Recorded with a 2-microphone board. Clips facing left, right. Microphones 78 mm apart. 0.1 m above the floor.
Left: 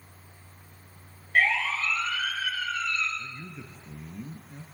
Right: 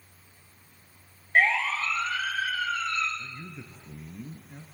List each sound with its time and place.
1.4 s a siren: 30° right (ahead or behind), 7 m; by 3.1 s 35° right (ahead or behind), 9 m
3.2 s a man speaking: 10° right (ahead or behind), 2 m